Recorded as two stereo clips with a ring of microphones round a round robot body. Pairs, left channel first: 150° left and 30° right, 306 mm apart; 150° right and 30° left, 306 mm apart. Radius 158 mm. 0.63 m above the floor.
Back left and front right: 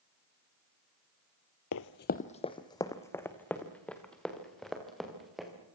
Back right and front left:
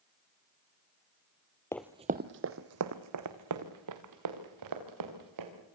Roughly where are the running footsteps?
Behind left.